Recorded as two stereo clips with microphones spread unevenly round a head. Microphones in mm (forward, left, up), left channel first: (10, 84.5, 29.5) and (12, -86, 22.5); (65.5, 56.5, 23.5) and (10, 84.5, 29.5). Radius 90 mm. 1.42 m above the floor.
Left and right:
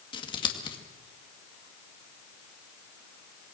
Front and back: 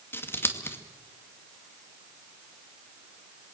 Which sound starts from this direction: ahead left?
Scissors, at 0.1 s.